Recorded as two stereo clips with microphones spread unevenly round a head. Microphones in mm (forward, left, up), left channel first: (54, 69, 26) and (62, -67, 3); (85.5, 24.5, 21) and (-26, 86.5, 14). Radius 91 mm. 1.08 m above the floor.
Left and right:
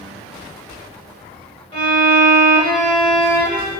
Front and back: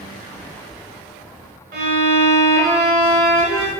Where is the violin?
155° left, 2.5 m.